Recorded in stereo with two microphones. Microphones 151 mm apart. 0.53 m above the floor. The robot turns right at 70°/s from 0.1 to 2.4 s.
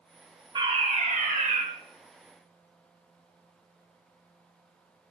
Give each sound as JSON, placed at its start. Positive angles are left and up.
{"t": 0.6, "sound": "a fire alarm", "azimuth_deg": -145, "distance_m": 3.0}